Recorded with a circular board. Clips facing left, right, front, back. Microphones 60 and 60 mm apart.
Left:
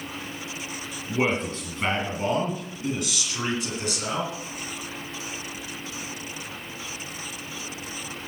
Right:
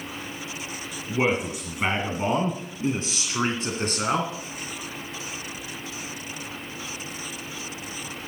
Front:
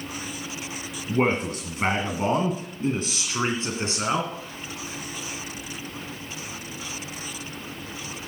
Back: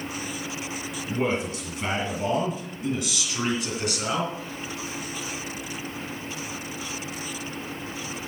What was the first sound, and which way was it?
A man speaking, 5° right.